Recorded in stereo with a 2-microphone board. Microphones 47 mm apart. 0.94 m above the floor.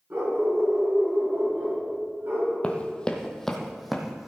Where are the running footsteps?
30° left (ahead or behind), 1.1 m; by 4.3 s 5° right (ahead or behind), 1.7 m.